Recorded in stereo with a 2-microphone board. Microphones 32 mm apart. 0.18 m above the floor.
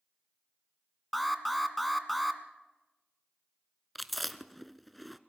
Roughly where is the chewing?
Centre.